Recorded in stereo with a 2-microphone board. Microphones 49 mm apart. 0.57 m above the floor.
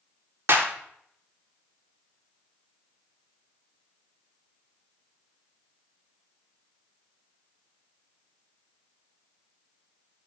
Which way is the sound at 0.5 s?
55° right (ahead or behind).